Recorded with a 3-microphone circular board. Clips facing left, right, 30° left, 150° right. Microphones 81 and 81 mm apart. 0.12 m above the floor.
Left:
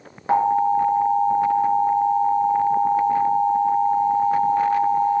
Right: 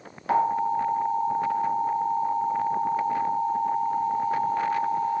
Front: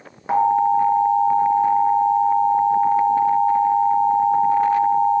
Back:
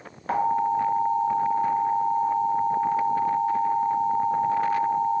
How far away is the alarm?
About 0.8 m.